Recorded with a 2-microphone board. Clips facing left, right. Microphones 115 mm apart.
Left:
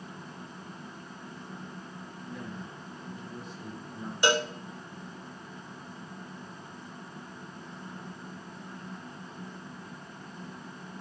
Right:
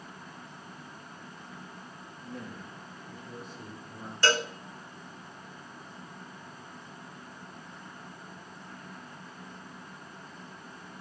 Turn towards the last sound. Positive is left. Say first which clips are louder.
# left 2 dB
turn(degrees=20)  # may be behind; listen again after turning